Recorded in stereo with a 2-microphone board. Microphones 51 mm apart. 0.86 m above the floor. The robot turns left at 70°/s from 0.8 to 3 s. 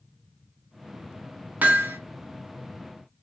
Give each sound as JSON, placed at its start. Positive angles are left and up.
{"t": 1.6, "sound": "hammering", "side_deg": -35, "distance_m": 0.7}